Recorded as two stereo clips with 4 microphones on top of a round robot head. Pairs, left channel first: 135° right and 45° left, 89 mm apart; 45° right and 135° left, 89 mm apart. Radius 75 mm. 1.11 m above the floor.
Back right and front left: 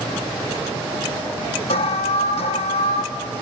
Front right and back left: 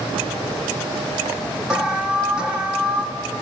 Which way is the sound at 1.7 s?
145° right.